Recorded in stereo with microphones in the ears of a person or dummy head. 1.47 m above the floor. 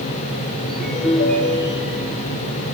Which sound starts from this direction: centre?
A ringtone, at 0.7 s.